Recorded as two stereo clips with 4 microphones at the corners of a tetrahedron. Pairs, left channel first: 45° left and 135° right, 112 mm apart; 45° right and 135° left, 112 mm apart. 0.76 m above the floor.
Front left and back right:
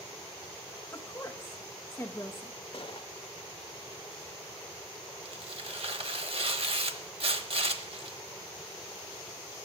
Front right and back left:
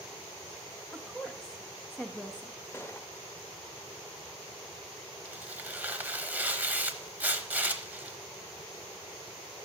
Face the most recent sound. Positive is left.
turn(degrees=-150)